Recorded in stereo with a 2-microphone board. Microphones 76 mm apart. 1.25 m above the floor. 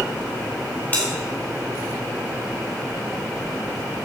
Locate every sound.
0.9 s a bell: 25° left (ahead or behind), 4 m